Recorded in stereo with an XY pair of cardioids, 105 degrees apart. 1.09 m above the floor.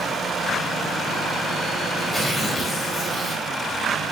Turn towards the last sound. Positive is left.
turn(degrees=10)